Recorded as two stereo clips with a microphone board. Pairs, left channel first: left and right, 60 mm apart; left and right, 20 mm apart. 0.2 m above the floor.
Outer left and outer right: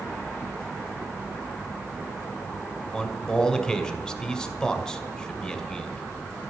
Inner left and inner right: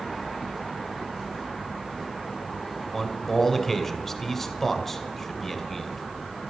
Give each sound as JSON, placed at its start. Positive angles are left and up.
{"t": 2.9, "sound": "a man speaking", "side_deg": 10, "distance_m": 2.0}